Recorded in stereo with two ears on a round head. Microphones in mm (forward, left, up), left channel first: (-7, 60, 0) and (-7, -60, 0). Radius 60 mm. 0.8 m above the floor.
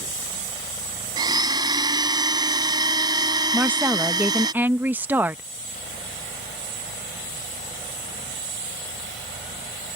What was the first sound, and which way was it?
A blender, 30° right (ahead or behind).